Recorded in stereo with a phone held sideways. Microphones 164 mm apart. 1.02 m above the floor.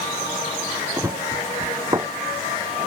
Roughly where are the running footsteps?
Centre.